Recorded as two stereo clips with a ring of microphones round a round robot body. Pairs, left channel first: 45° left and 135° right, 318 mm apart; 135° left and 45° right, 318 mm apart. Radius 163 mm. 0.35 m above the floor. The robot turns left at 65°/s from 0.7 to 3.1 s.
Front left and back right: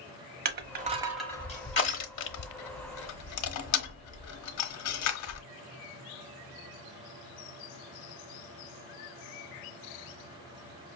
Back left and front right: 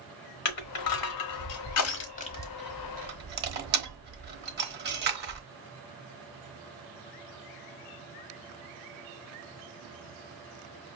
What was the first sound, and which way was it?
Crushing, 165° left.